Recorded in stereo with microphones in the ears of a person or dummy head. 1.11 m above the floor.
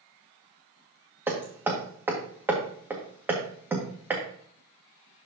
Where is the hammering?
5° right (ahead or behind), 1.4 m.